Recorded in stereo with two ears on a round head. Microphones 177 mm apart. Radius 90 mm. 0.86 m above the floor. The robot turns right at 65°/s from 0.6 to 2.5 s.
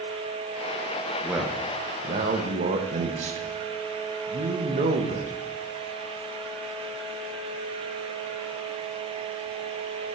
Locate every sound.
1.2 s a man speaking: straight behind, 0.8 m; by 5.3 s 100° right, 0.8 m